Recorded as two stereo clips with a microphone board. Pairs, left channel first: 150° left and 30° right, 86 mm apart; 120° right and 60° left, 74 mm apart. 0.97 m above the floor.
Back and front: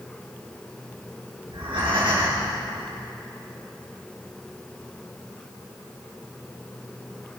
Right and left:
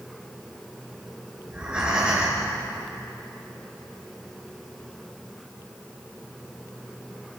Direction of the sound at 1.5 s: 20° right.